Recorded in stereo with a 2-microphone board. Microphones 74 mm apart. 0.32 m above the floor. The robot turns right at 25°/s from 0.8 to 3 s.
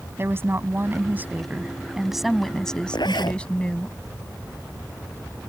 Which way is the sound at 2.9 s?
80° left.